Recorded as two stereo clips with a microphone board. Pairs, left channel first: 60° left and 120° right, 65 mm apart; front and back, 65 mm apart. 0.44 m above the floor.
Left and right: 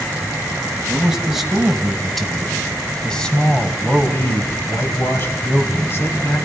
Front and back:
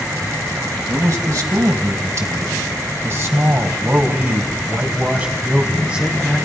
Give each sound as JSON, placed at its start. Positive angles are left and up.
{"t": 0.9, "sound": "a man speaking", "azimuth_deg": 160, "distance_m": 3.5}